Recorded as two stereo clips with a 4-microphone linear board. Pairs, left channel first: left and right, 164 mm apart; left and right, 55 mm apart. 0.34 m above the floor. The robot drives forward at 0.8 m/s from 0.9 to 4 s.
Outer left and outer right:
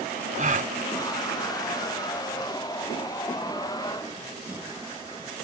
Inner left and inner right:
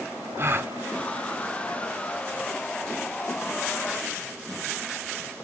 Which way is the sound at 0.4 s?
50° right (ahead or behind).